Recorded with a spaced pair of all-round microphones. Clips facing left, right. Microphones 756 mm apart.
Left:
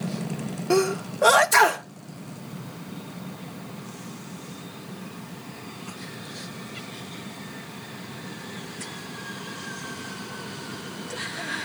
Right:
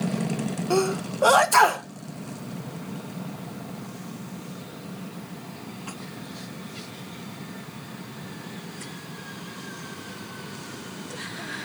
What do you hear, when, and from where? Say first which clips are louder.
0.7 s a sneeze: left 2 dB; 55° left (ahead or behind), 0.6 m